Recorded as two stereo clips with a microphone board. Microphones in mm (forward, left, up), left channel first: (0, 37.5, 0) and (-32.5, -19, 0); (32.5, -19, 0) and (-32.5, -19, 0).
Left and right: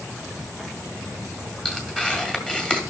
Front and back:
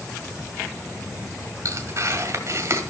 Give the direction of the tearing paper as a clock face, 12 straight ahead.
7 o'clock.